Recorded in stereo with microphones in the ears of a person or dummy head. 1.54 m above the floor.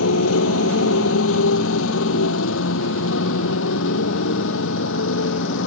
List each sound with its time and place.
0.0 s a motorcycle: 85° left; by 5.7 s 70° left (ahead or behind)